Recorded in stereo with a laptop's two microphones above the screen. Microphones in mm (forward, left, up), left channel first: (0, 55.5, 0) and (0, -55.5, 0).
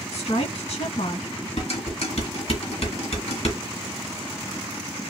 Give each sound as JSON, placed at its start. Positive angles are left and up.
{"t": 0.1, "sound": "a woman speaking", "side_deg": 60, "distance_m": 1.5}
{"t": 1.6, "sound": "dishes clattering", "side_deg": 65, "distance_m": 1.5}